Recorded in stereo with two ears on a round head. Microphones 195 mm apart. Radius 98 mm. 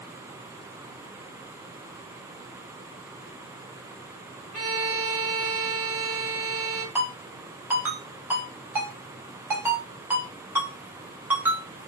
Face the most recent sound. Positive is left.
turn(degrees=-10)  # may be behind; listen again after turning